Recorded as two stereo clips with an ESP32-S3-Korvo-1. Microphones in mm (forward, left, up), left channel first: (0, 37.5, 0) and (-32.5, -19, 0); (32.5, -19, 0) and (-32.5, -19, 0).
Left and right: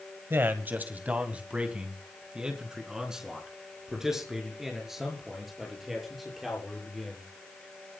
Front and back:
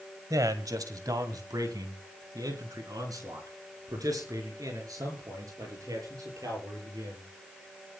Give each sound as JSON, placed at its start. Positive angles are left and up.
{"t": 0.3, "sound": "a man speaking", "azimuth_deg": -170, "distance_m": 1.8}